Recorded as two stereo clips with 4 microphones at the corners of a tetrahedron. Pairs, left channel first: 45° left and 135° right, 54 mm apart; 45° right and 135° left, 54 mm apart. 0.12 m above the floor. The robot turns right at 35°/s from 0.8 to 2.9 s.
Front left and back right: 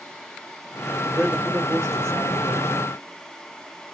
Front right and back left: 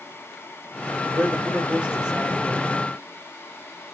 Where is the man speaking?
175° left, 2.5 m; by 2.7 s 130° right, 2.5 m.